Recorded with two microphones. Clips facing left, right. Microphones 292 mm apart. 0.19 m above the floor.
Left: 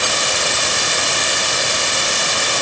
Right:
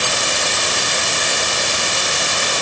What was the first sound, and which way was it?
Only background noise.